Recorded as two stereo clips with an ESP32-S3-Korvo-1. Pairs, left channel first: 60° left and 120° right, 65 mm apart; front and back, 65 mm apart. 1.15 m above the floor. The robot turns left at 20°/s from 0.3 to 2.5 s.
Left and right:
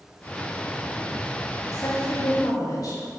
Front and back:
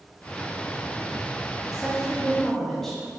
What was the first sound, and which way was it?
A woman speaking, 100° left.